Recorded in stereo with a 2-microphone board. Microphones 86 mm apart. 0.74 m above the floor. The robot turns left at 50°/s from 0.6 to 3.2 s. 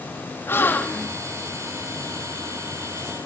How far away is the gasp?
About 1.2 m.